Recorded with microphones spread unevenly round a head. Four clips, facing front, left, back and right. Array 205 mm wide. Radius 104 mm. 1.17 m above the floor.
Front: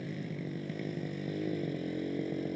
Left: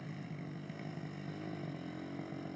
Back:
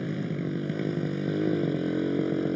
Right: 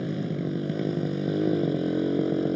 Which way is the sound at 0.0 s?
125° right.